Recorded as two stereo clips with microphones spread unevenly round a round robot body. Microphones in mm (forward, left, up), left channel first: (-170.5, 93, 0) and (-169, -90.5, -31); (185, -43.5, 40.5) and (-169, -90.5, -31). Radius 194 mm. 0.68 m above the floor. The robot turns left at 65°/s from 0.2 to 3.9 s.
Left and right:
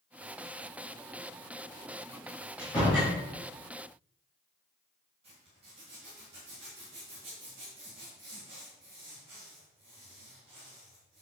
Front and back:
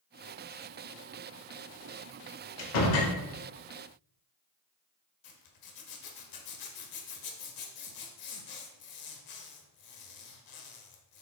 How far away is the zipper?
About 1.4 m.